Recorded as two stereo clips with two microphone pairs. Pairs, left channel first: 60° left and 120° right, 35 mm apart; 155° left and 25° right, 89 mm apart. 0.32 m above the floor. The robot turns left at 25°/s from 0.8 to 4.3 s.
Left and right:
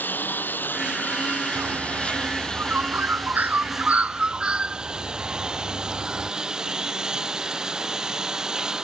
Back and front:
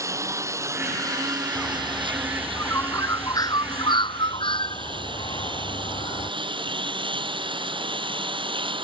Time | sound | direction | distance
0.0 | a lawn mower | 30° left | ?
1.6 | a bird | 115° right | ?